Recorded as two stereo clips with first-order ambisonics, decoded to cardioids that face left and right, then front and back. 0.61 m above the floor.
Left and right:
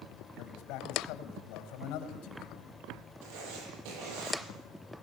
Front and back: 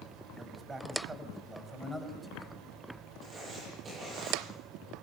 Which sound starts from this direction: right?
Writing, at 3.2 s.